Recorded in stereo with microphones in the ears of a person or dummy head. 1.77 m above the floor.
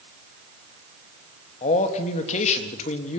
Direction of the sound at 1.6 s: 40° left (ahead or behind).